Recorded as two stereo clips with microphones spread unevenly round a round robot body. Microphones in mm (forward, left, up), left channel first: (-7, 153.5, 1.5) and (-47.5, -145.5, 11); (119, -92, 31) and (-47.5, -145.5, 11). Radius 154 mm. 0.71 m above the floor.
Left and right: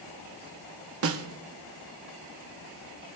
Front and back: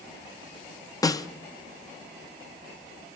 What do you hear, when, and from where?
1.0 s a snare drum: 55° right, 0.8 m